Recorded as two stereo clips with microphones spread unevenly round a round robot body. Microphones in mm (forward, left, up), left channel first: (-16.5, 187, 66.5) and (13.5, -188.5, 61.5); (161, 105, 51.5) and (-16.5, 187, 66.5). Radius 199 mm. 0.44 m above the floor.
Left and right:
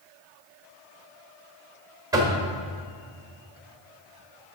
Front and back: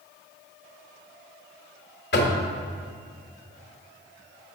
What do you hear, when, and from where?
2.1 s knocking: 5° right, 1.2 m